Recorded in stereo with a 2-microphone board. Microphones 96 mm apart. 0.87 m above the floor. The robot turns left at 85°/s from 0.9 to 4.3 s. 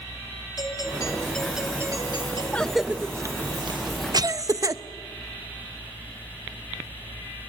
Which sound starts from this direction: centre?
A cough, at 2.5 s.